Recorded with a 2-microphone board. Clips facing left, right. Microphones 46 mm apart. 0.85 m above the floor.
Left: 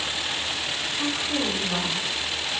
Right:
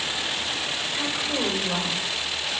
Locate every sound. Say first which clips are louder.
0.9 s a woman speaking: left 1 dB; 30° right (ahead or behind), 2.5 m; by 2.5 s 45° right (ahead or behind), 3 m